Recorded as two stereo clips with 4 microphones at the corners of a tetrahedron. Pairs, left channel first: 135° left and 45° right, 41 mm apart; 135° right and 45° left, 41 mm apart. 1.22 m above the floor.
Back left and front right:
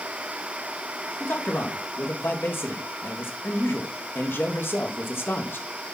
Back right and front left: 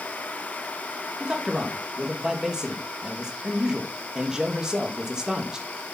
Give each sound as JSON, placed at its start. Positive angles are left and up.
{"t": 1.2, "sound": "a man speaking", "azimuth_deg": 120, "distance_m": 1.9}